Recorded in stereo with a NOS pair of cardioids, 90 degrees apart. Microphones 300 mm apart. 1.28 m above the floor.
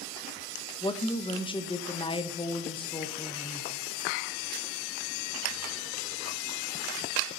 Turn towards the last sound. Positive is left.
turn(degrees=15)